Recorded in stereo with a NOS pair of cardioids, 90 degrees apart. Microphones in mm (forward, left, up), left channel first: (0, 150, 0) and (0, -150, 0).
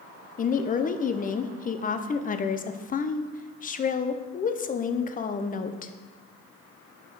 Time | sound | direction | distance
0.4 | a woman speaking | 30° left | 0.5 m